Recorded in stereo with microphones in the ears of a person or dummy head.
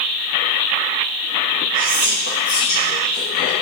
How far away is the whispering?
About 1.7 m.